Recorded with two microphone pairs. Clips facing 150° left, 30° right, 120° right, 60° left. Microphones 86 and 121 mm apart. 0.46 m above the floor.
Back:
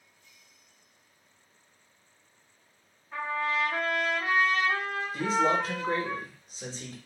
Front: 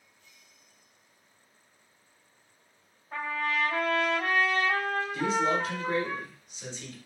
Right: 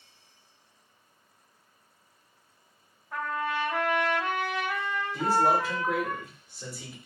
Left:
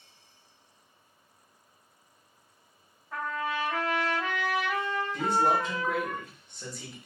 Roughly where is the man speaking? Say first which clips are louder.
Back 3 dB, right 2 dB; behind.